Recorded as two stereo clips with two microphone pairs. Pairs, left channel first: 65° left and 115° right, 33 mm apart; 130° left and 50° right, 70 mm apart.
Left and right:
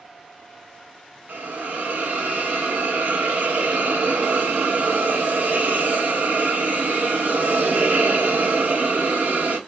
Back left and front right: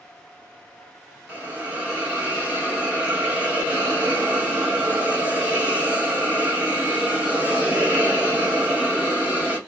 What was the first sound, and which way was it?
A hiss, 115° right.